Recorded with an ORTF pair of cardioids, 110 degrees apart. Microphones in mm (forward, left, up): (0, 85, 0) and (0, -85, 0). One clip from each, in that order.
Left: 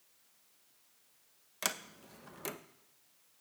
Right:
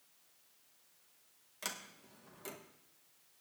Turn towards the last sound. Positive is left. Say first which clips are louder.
# left 6 dB
turn(degrees=40)